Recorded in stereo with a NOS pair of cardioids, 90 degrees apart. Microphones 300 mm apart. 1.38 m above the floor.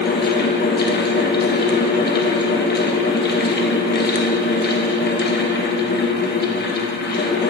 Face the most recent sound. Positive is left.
turn(degrees=35)